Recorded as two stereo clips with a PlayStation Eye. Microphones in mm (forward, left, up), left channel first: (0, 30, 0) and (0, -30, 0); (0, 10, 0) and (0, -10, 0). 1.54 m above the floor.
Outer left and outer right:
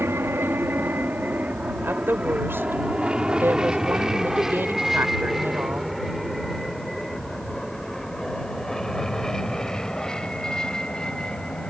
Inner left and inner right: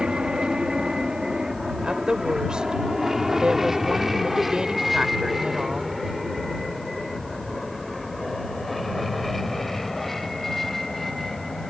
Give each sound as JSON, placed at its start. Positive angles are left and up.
{"t": 0.0, "sound": "an aircraft", "side_deg": -40}
{"t": 1.8, "sound": "a woman speaking", "side_deg": -40}